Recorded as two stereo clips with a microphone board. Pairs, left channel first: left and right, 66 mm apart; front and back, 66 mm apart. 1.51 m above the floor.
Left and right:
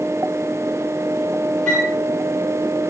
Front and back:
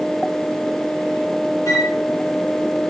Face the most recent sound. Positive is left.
turn(degrees=15)